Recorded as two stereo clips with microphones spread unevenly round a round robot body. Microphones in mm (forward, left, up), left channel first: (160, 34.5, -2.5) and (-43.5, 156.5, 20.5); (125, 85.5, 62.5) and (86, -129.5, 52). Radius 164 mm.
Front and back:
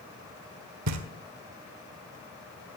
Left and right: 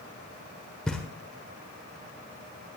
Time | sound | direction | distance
0.9 | knocking | 170° left | 1.2 m